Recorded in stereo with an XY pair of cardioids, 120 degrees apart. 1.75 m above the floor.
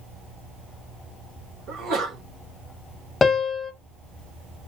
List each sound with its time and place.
1.7 s a sneeze: 60° right, 2 m
3.2 s a piano: 30° left, 0.6 m